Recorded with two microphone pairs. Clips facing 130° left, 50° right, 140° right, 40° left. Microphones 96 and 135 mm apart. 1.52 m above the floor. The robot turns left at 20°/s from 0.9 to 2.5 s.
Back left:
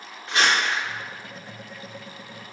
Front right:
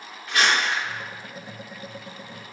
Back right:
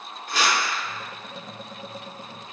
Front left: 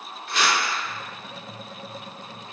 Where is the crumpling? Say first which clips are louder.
Even, even; 175° right, 1.0 m.